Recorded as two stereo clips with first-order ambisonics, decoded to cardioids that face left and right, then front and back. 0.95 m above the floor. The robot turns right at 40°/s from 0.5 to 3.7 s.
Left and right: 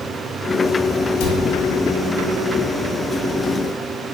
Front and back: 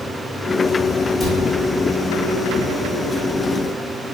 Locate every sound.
1.2 s a cupboard door: 95° left, 3 m; by 1.4 s 105° left, 3 m